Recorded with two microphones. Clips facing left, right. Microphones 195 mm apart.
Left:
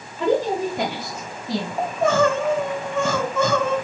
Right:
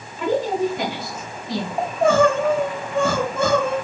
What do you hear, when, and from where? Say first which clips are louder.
0.2 s a woman speaking: even; 35° left (ahead or behind), 1.1 m; by 1.7 s 60° left (ahead or behind), 1.8 m
1.8 s crying: right 3 dB; 30° right (ahead or behind), 1.2 m